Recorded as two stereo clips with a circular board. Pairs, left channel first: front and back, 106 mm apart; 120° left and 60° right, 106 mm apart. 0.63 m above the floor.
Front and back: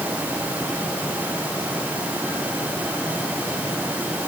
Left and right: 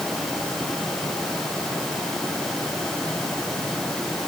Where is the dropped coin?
No dropped coin in this recording.